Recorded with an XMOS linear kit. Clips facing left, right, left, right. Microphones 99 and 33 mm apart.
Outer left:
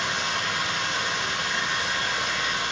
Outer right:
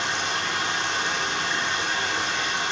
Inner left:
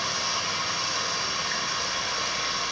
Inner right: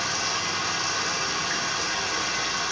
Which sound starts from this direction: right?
Running water, at 0.0 s.